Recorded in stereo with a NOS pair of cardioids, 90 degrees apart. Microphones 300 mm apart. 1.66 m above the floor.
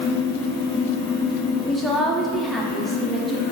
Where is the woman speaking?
Straight ahead, 0.5 m.